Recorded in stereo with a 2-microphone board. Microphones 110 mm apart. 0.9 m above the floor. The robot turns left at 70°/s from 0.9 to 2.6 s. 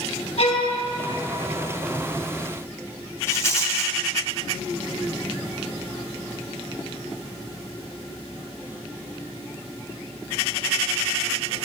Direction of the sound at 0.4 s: 80° left.